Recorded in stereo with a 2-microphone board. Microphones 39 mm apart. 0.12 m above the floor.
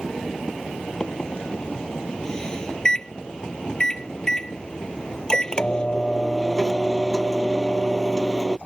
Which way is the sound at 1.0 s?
20° left (ahead or behind).